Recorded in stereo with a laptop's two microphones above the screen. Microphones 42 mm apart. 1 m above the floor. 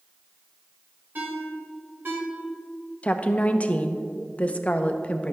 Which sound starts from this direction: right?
A ringtone, at 1.1 s.